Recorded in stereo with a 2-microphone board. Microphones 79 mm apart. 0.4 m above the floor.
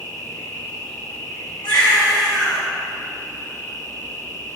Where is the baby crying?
75° left (ahead or behind), 1.8 m.